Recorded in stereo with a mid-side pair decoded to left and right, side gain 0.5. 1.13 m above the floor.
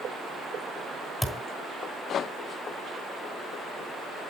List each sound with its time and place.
1.2 s a thud: 5° right, 3 m